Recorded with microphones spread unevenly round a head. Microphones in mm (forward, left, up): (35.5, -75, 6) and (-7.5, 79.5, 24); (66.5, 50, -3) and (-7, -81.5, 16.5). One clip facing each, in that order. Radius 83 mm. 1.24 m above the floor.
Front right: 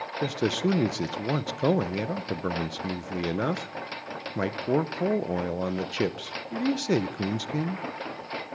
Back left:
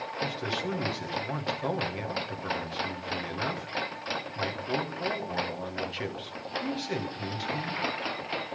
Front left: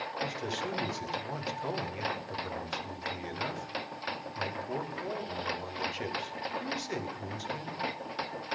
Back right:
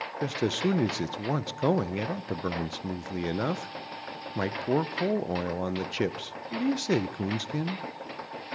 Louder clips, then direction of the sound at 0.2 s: Front right 8 dB, back right 10 dB; 100° right.